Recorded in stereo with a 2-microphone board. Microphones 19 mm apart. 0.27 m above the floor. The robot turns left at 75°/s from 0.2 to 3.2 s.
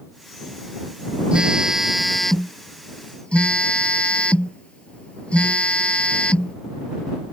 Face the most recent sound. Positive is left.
turn(degrees=95)